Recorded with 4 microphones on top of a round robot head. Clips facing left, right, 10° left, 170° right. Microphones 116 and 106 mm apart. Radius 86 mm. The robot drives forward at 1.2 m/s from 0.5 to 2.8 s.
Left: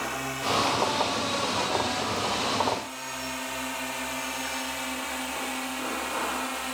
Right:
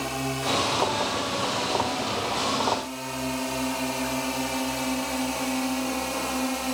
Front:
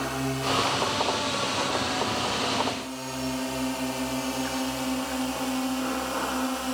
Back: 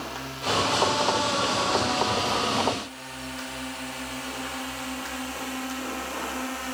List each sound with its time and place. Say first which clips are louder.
0.0 s a drone: right 3 dB, front 5 dB; 30° right; by 6.7 s 50° right